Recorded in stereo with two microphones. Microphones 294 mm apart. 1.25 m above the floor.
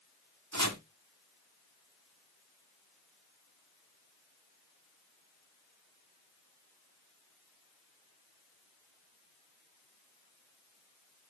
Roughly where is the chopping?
Right.